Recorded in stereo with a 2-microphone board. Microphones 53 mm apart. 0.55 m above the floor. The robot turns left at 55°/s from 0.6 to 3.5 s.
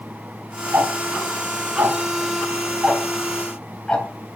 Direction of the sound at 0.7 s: 40° right (ahead or behind).